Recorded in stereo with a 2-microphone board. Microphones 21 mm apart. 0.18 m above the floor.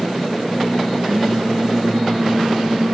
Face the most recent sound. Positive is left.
turn(degrees=-45)  # may be behind; listen again after turning